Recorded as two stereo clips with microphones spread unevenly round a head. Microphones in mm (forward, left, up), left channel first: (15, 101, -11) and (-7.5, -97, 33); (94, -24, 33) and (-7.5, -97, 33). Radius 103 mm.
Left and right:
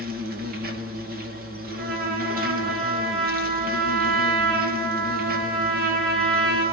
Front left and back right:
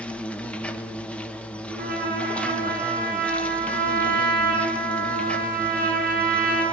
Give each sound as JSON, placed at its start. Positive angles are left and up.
{"t": 0.0, "sound": "an insect", "azimuth_deg": -45, "distance_m": 1.9}
{"t": 1.7, "sound": "a trumpet", "azimuth_deg": -140, "distance_m": 8.0}